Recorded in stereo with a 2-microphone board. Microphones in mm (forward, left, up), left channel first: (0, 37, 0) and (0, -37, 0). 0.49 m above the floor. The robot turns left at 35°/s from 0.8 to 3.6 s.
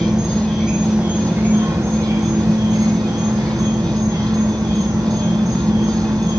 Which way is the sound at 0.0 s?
5° right.